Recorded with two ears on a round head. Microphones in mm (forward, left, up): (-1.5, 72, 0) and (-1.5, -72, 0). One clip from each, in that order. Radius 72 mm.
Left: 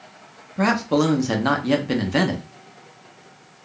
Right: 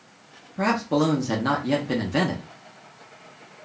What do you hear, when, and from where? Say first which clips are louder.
0.6 s a man speaking: left 3 dB; 15° left (ahead or behind), 0.6 m